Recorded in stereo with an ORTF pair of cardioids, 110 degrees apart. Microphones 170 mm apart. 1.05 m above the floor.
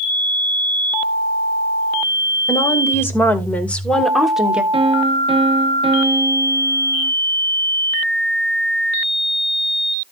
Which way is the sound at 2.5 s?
15° left.